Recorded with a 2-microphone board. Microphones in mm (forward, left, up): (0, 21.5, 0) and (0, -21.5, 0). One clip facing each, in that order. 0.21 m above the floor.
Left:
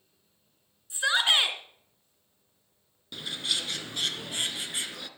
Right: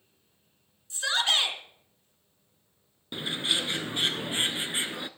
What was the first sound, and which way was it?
A shout, 20° left (ahead or behind).